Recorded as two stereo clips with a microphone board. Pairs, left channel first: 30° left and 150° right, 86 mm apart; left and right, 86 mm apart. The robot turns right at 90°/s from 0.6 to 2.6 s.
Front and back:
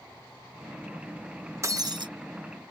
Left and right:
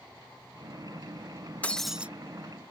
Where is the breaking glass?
160° left; by 2.1 s 160° right.